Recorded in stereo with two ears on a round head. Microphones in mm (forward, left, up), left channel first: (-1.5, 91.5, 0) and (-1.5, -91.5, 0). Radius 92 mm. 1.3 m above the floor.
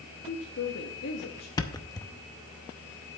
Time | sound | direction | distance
0.3 | a woman speaking | 65° left (ahead or behind) | 1.5 m
1.6 | a thud | 20° left (ahead or behind) | 0.7 m